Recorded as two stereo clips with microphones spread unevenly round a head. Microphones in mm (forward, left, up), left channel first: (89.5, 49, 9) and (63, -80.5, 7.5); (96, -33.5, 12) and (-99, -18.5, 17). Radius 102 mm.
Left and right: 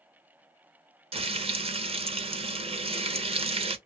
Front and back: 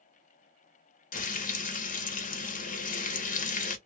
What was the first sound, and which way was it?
Frying, 55° right.